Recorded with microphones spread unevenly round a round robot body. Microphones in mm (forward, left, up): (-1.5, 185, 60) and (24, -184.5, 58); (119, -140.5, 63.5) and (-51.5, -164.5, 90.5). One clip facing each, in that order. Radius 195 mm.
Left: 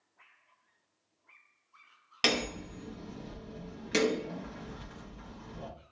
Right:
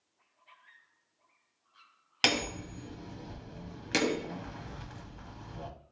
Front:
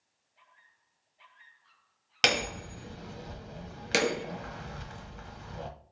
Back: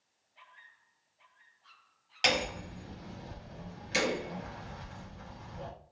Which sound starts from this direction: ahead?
Hammering, at 2.2 s.